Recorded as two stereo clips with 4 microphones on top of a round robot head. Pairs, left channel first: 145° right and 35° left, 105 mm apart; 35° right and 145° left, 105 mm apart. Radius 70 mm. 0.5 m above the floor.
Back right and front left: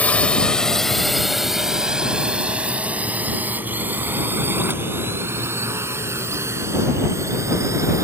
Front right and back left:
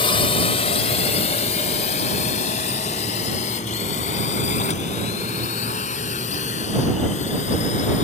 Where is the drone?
70° right; by 8.1 s 30° right.